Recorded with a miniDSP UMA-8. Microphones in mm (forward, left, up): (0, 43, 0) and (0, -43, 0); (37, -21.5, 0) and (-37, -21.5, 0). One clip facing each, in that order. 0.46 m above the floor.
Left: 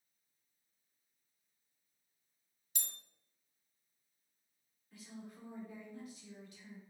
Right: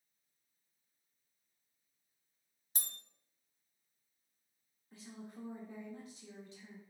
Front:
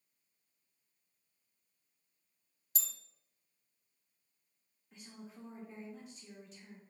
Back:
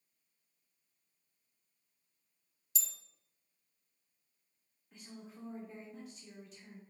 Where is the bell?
40° right, 0.5 m.